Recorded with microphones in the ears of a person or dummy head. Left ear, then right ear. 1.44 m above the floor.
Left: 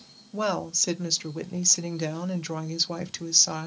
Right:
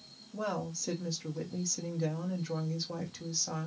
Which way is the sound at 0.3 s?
80° left.